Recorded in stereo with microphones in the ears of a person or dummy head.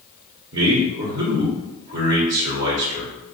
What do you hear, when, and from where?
0.5 s a man speaking: 60° right (ahead or behind), 0.8 m